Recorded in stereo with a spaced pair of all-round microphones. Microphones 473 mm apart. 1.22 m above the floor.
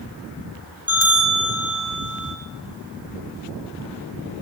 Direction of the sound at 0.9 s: 30° right (ahead or behind).